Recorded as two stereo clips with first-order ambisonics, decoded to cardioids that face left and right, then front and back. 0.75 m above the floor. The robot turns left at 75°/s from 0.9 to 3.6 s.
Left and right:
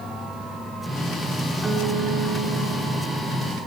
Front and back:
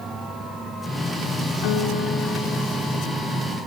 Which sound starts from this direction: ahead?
A guitar, at 1.6 s.